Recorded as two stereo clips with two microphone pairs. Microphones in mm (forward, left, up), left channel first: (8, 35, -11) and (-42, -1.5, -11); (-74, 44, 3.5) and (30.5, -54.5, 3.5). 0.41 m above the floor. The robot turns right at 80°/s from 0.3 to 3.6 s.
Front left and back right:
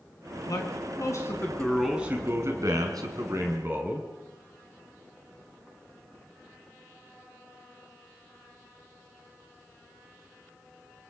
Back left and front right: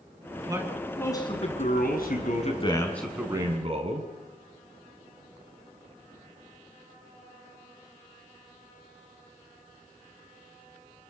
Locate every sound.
0.5 s a man speaking: 15° left, 5 m; by 4.1 s 90° right, 5 m